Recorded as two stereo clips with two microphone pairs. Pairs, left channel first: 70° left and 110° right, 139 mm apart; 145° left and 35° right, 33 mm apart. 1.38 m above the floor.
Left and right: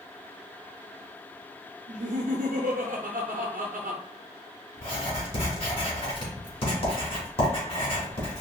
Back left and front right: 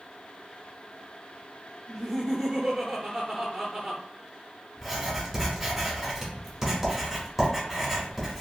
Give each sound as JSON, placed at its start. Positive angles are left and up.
{"t": 1.9, "sound": "laughter", "azimuth_deg": -110, "distance_m": 0.5}
{"t": 4.8, "sound": "writing", "azimuth_deg": 45, "distance_m": 1.5}